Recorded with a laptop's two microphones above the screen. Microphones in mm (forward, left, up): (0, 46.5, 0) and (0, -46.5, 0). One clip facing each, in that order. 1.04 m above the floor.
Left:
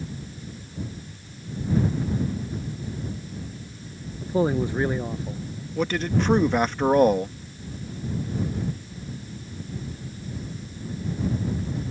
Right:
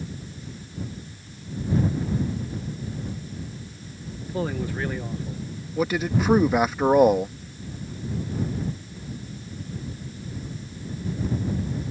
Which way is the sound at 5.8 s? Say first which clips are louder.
Right 1 dB; 5° right (ahead or behind).